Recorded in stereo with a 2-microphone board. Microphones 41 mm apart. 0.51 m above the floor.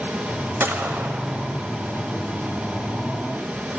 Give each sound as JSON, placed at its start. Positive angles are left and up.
{"t": 0.6, "sound": "a gunshot", "side_deg": -80, "distance_m": 1.0}